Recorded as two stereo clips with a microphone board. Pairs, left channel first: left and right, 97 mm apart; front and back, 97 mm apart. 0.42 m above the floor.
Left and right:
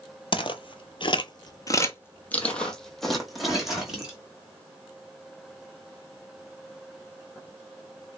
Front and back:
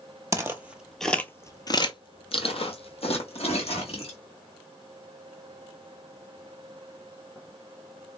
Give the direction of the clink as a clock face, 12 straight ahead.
I don't hear a clink.